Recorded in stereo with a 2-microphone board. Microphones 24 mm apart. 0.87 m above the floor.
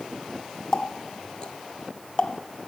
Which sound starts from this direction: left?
A running tap, at 0.7 s.